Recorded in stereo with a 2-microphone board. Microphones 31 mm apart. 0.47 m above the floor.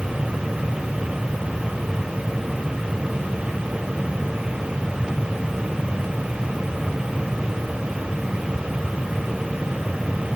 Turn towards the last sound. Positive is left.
No sound to turn to.